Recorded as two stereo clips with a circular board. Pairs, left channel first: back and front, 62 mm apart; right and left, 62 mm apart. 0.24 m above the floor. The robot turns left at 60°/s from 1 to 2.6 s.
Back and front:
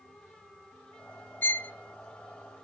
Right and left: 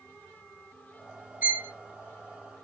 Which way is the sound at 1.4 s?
140° left.